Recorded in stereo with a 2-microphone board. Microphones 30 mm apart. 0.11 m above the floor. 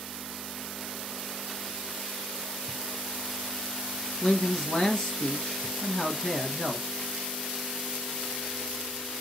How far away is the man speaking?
About 1.4 m.